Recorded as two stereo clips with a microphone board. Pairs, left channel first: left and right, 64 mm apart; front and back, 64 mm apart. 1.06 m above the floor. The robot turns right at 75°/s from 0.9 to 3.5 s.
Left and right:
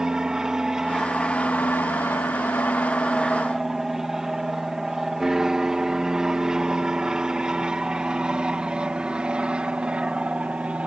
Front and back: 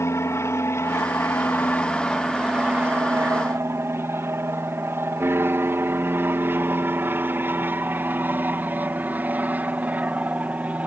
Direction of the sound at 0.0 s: 15° right.